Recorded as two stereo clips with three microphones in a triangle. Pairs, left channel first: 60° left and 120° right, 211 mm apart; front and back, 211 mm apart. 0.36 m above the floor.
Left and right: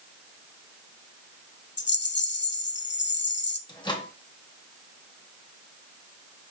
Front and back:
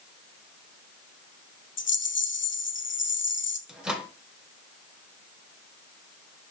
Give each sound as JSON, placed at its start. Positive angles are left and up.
{"t": 1.8, "sound": "a rattle", "azimuth_deg": 30, "distance_m": 0.5}
{"t": 3.7, "sound": "a microwave", "azimuth_deg": 100, "distance_m": 0.8}